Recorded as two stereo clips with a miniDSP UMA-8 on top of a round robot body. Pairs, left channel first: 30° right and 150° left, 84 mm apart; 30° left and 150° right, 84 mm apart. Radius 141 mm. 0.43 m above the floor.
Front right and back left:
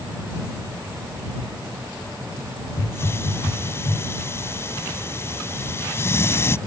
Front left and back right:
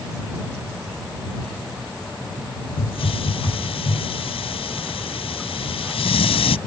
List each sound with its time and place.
2.8 s a hiss: 30° left